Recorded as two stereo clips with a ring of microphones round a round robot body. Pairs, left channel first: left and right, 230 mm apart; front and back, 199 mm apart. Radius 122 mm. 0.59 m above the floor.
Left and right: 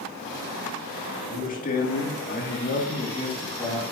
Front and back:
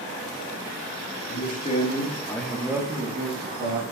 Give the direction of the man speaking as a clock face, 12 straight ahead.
11 o'clock.